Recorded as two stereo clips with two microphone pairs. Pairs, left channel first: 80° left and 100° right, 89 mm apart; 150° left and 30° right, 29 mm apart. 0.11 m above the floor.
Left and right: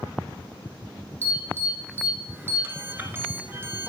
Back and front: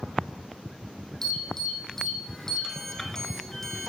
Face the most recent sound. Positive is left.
turn(degrees=-140)